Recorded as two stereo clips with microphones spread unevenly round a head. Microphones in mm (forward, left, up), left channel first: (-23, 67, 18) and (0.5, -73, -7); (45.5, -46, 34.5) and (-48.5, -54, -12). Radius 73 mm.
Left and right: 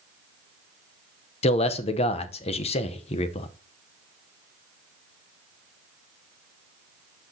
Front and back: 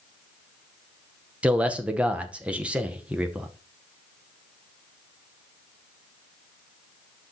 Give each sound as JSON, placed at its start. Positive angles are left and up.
{"t": 1.4, "sound": "a man speaking", "azimuth_deg": 140, "distance_m": 0.7}